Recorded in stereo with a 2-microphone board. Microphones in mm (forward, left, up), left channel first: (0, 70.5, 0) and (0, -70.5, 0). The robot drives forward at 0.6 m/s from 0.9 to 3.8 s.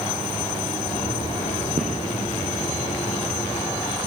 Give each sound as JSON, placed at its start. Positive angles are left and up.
{"t": 1.8, "sound": "a gunshot", "side_deg": -55, "distance_m": 5.0}